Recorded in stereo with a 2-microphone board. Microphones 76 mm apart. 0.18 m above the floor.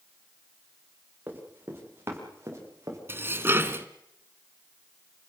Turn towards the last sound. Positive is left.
turn(degrees=-30)  # may be behind; listen again after turning